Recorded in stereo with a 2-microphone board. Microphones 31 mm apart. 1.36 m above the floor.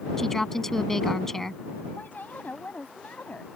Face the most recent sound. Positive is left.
turn(degrees=60)  # may be behind; listen again after turning